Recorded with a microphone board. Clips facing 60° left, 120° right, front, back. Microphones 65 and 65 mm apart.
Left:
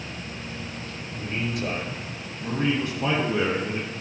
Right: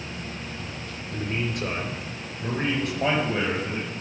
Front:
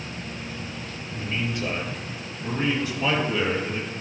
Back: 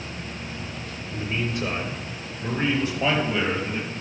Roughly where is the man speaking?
Behind right.